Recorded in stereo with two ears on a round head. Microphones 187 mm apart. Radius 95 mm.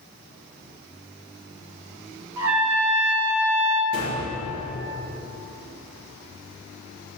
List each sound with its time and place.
2.4 s a trumpet: 75° right (ahead or behind), 1.4 m
3.9 s a gunshot: 70° right (ahead or behind), 4.5 m